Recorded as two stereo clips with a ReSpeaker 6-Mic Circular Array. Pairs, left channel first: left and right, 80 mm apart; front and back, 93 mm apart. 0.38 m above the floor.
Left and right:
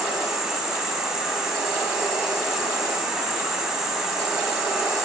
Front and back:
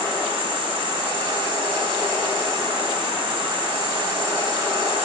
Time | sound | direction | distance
0.0 | an insect | 170° right | 1.8 m